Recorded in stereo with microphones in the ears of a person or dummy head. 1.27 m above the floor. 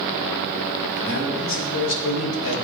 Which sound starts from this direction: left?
A man speaking, at 1.0 s.